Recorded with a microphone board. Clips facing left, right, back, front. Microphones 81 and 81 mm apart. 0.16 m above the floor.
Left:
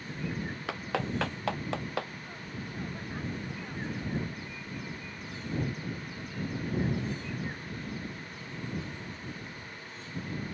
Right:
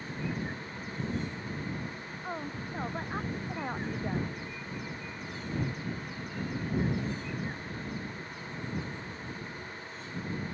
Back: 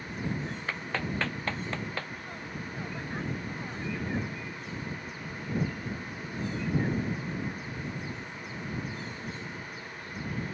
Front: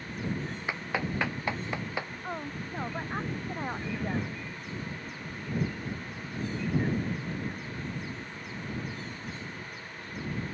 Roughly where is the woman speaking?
Ahead right.